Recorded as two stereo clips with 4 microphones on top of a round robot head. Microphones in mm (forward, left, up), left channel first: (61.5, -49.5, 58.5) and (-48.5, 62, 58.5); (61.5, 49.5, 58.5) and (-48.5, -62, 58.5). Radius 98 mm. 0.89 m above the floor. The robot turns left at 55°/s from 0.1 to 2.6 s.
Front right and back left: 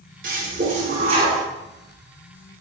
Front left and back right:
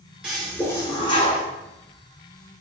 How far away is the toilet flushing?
About 0.6 m.